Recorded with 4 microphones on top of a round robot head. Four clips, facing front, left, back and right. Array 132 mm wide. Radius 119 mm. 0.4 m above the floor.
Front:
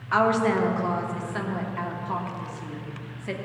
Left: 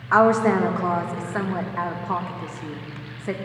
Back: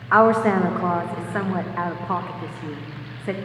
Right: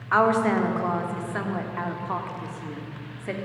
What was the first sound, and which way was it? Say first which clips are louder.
A woman speaking: left 4 dB, back 5 dB; 160° left.